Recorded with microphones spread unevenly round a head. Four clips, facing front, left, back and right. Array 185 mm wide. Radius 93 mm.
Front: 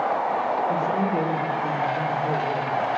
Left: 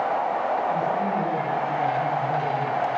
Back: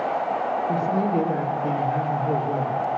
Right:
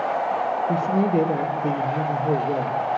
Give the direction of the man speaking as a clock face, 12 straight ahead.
3 o'clock.